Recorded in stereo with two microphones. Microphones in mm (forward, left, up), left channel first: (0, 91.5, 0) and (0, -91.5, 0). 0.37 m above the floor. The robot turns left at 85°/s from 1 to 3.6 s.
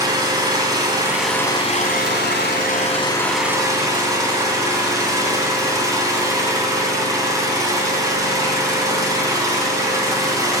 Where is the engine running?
160° right, 2.0 m; by 10.6 s 20° right, 2.0 m.